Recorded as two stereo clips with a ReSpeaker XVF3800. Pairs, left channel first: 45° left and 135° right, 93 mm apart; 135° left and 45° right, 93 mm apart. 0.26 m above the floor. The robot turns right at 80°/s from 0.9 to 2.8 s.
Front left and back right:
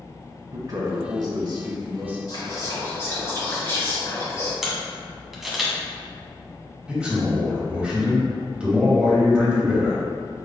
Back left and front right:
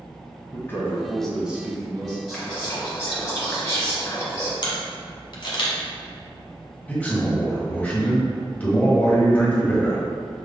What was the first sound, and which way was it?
A man speaking, 165° right.